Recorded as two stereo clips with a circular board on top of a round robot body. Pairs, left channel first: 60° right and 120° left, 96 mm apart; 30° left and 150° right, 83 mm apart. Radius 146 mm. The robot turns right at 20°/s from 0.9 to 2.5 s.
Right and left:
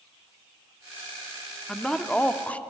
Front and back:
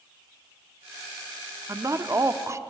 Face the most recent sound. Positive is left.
turn(degrees=-125)